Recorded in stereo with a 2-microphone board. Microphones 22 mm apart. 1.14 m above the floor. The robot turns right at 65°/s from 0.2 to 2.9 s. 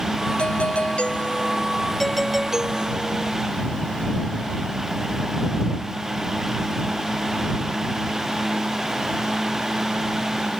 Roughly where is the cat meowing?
I don't hear a cat meowing.